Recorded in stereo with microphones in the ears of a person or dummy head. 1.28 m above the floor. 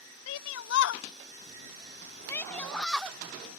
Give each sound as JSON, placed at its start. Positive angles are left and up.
{"t": 0.3, "sound": "a shout", "side_deg": 90}